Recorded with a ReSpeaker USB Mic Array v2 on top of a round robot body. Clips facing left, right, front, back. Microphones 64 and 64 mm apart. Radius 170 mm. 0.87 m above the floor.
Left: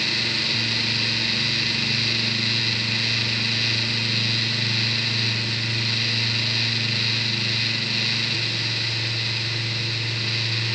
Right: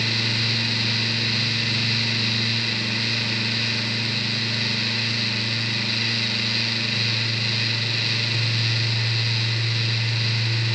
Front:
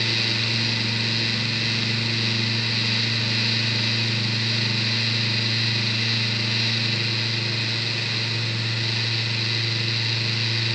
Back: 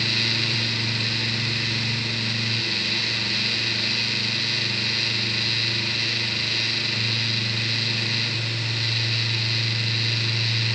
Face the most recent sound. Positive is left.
No sound to turn to.